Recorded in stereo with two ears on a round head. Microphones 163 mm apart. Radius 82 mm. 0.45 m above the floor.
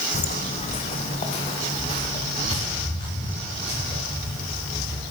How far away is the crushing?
I don't hear crushing.